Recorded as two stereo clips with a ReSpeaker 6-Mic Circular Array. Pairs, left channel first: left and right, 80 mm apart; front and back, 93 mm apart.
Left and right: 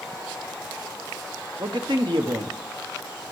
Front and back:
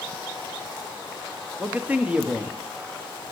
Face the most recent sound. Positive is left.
turn(degrees=-105)